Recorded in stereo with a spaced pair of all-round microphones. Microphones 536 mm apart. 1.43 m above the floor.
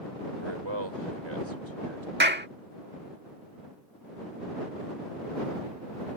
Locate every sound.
0.4 s a man speaking: 55° right (ahead or behind)
2.2 s a clap: 20° right (ahead or behind)